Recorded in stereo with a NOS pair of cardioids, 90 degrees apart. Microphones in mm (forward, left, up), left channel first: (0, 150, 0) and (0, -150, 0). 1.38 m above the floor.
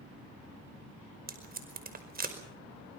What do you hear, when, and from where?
1.3 s tape being pulled: 30° right, 5 m